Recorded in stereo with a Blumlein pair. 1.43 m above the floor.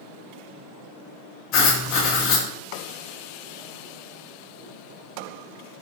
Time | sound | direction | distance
1.5 | writing | 40° left | 0.8 m